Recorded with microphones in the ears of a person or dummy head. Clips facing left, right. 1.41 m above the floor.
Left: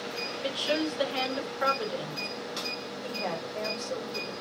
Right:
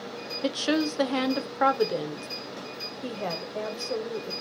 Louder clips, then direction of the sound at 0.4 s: Right 4 dB; 65° right (ahead or behind).